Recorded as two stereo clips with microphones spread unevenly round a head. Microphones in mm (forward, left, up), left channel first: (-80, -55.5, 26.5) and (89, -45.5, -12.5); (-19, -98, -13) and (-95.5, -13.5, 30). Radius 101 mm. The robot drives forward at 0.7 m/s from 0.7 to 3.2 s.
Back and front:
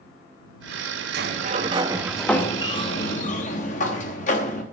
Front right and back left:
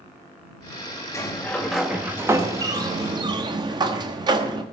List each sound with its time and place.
1.1 s a sliding door: 40° left, 1.0 m; by 4.6 s 150° left, 1.2 m